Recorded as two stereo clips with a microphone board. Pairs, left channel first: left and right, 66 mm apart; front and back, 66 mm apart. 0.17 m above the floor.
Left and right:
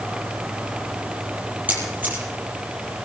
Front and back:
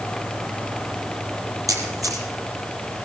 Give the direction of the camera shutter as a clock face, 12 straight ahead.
5 o'clock.